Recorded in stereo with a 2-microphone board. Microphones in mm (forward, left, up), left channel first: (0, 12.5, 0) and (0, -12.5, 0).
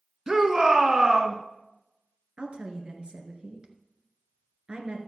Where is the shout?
30° right (ahead or behind), 1.3 m.